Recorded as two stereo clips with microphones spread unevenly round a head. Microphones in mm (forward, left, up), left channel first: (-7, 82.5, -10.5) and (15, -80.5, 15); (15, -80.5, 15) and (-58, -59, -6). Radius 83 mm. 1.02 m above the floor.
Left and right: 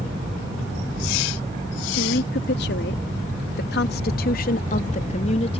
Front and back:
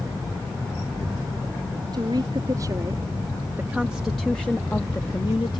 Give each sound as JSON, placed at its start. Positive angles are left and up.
{"t": 1.9, "sound": "a woman speaking", "azimuth_deg": 115}